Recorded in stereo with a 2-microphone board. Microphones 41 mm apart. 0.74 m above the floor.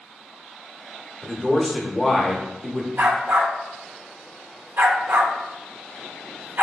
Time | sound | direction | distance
1.2 | a man speaking | centre (ahead or behind) | 0.8 m
3.0 | a dog barking | 55° right (ahead or behind) | 0.6 m